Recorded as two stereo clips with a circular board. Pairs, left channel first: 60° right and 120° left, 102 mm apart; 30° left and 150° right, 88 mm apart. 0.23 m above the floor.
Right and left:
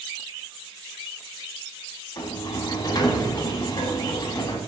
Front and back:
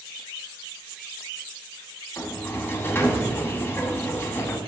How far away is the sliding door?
About 0.7 m.